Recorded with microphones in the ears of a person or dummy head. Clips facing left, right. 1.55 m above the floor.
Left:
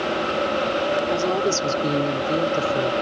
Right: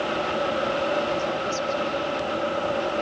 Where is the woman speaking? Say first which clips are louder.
Left 5 dB; 75° left (ahead or behind); by 2.9 s 60° left (ahead or behind).